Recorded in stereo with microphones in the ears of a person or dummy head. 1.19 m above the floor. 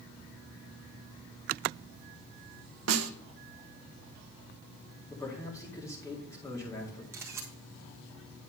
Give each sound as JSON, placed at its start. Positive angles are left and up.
{"t": 2.9, "sound": "a snare drum", "side_deg": -80, "distance_m": 0.9}
{"t": 5.1, "sound": "a man speaking", "side_deg": 20, "distance_m": 2.0}
{"t": 7.1, "sound": "a camera shutter", "side_deg": -10, "distance_m": 1.4}